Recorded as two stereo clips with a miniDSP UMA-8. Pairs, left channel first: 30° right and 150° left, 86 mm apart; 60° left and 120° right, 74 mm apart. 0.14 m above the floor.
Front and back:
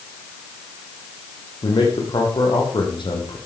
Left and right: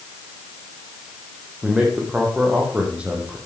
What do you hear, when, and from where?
1.6 s a man speaking: 45° right, 5.5 m